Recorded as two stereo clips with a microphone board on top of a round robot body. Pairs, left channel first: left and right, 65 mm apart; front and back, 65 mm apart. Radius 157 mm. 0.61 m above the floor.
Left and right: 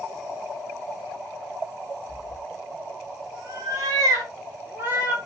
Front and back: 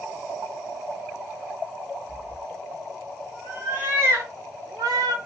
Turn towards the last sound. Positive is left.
turn(degrees=-155)